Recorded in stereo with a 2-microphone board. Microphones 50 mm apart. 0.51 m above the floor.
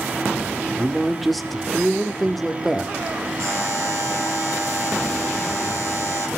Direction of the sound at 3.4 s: 75° right (ahead or behind).